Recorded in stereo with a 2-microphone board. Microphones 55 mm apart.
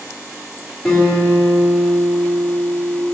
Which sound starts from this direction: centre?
A guitar, at 0.8 s.